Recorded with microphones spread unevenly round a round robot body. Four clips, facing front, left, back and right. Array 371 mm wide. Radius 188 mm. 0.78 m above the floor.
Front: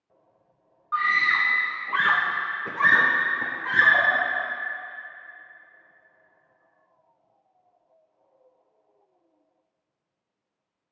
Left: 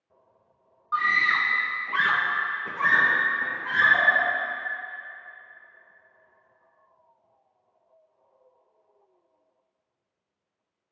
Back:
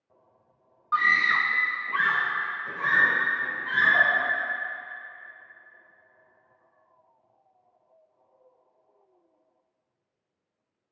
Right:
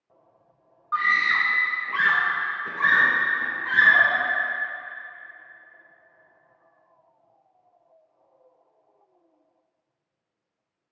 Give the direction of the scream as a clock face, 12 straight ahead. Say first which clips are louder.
Right 1 dB, even; 6 o'clock.